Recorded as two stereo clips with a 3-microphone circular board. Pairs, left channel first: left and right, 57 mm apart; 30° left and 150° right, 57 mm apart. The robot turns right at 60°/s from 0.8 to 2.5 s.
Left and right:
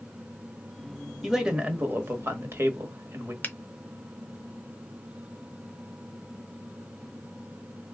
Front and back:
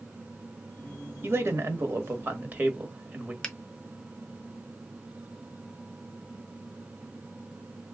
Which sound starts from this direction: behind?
A man speaking, at 1.2 s.